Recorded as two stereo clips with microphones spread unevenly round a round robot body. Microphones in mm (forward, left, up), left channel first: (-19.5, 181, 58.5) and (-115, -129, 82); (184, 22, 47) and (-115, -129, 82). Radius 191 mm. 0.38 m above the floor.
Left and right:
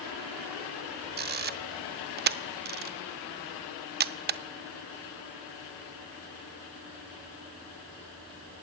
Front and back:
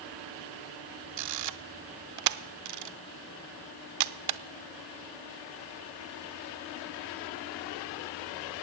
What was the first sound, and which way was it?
A camera shutter, 165° right.